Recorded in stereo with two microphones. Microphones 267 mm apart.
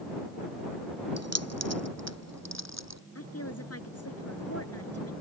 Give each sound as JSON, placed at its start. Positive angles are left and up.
{"t": 1.2, "sound": "keys jangling", "side_deg": -70}
{"t": 3.1, "sound": "a woman speaking", "side_deg": 65}